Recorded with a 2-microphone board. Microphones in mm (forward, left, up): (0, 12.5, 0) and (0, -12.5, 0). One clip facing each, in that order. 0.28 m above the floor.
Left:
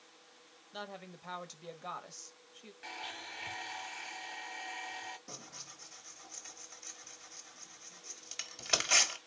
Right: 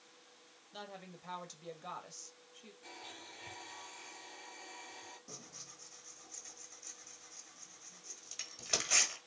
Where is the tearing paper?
25° left (ahead or behind), 1.3 m.